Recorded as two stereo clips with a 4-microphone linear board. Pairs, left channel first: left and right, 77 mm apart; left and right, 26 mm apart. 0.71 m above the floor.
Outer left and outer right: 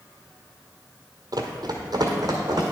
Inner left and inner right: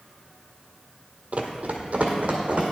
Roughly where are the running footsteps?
Right.